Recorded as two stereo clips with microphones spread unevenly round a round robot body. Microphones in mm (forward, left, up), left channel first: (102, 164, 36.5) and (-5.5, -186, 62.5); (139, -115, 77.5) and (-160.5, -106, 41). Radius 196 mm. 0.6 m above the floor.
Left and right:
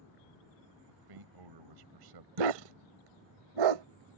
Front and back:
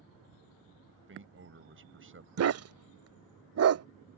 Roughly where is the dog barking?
Behind right.